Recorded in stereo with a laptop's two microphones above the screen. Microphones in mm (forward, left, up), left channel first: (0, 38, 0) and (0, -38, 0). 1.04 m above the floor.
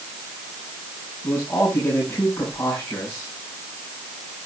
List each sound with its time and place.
1.2 s a man speaking: 20° left (ahead or behind), 5.5 m